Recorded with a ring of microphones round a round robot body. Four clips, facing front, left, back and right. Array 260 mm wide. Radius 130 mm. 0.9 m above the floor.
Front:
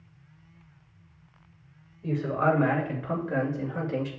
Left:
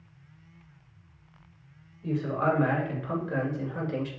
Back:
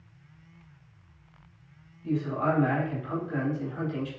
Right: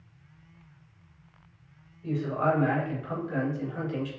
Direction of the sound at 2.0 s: 20° left.